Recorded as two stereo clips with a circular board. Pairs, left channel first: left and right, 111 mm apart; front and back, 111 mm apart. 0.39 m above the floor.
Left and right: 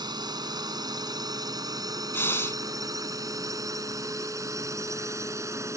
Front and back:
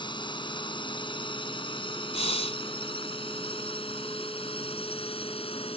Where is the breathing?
20° left.